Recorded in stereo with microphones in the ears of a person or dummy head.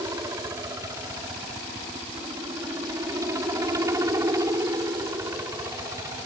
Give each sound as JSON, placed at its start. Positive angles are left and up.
{"t": 0.0, "sound": "a helicopter", "side_deg": -20}